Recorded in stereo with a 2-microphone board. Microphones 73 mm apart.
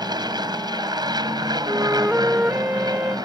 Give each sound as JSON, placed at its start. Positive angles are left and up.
{"t": 0.0, "sound": "an aircraft", "side_deg": -70}
{"t": 1.7, "sound": "a flute", "side_deg": -20}